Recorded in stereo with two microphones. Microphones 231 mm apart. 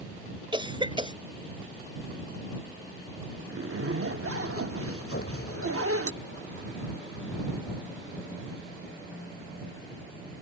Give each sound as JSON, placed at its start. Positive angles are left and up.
{"t": 0.5, "sound": "a cough", "side_deg": -20}
{"t": 3.5, "sound": "a zipper", "side_deg": -70}
{"t": 5.1, "sound": "an explosion", "side_deg": 65}